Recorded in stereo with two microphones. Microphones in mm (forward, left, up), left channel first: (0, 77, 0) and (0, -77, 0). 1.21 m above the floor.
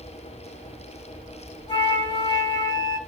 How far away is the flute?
About 5.5 m.